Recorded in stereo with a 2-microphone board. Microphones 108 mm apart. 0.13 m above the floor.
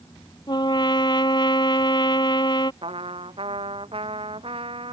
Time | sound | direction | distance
0.5 | a trumpet | 45° left (ahead or behind) | ?
2.8 | a trumpet | 60° right (ahead or behind) | ?